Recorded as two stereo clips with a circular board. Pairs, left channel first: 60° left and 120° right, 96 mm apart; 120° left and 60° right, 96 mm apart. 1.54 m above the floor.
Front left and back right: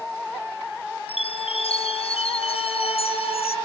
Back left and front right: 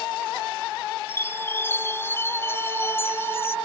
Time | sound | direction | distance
1.1 | a chime | 55° left | ?